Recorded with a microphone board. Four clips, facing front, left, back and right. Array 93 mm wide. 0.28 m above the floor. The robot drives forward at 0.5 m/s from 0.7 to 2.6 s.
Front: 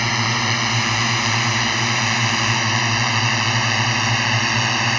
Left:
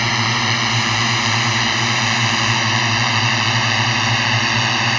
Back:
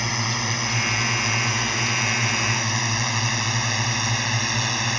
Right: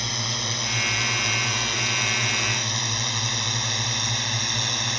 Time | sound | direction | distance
0.0 | a drone | 60° left | ?